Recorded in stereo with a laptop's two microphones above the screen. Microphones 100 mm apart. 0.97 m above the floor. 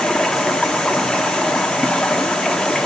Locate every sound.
0.0 s running water: 10° left (ahead or behind), 1.2 m